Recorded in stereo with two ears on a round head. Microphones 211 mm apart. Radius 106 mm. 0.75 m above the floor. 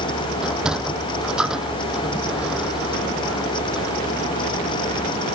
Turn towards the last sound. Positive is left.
turn(degrees=-5)  # may be behind; listen again after turning